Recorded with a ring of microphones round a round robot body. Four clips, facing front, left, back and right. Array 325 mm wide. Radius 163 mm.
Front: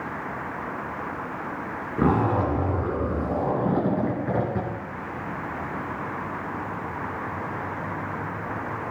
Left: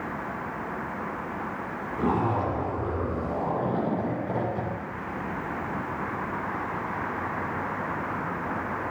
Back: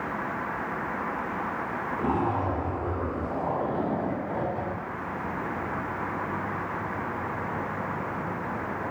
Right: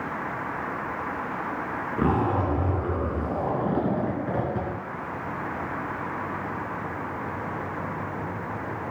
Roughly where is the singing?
No singing in this recording.